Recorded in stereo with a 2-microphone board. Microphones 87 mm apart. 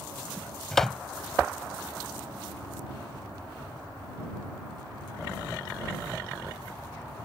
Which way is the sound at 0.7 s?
5° left (ahead or behind).